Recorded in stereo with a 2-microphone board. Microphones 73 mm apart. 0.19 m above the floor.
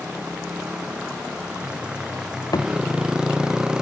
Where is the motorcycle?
15° right (ahead or behind); by 3.8 s 10° right (ahead or behind).